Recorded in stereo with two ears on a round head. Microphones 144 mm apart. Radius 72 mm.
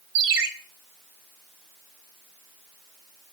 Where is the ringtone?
85° right, 2.5 m.